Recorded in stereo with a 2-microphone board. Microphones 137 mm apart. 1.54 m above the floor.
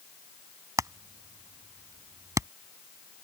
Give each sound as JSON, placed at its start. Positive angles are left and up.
{"t": 0.8, "sound": "hammering", "side_deg": -25}